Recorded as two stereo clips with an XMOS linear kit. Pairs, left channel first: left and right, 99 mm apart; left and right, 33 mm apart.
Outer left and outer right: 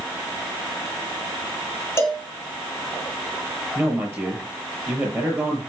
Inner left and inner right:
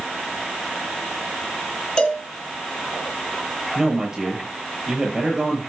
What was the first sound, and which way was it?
A cowbell, 30° left (ahead or behind).